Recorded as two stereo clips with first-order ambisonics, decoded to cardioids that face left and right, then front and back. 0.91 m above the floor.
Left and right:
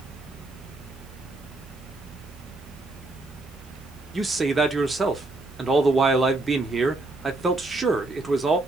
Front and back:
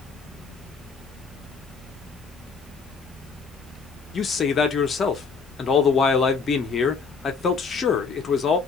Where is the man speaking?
30° right, 0.6 m.